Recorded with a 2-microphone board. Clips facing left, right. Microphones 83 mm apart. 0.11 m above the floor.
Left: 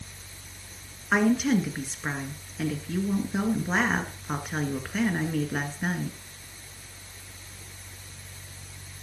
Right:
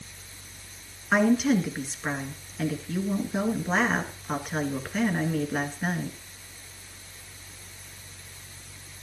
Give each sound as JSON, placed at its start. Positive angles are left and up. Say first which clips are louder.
{"t": 1.1, "sound": "a woman speaking", "louder": "right 1 dB", "side_deg": 0, "distance_m": 1.6}